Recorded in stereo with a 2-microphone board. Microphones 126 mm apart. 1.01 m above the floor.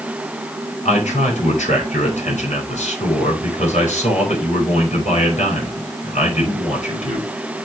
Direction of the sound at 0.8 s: 75° left (ahead or behind).